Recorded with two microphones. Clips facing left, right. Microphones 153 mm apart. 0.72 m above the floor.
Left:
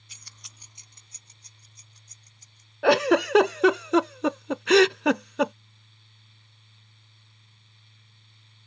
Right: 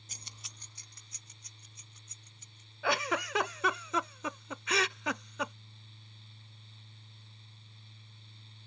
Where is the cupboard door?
I don't hear a cupboard door.